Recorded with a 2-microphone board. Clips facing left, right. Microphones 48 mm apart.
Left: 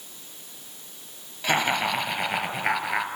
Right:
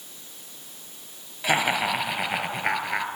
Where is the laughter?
10° right (ahead or behind), 5 m; by 3.1 s 5° left (ahead or behind), 4.5 m.